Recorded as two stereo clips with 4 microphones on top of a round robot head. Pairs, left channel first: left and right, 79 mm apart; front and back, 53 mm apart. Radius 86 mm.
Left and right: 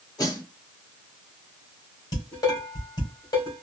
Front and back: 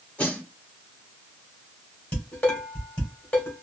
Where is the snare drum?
60° left, 3 m.